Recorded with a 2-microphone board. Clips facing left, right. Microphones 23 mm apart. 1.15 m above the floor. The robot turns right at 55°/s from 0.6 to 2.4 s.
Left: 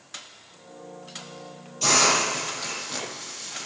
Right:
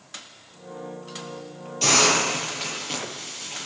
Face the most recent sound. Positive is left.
turn(degrees=-120)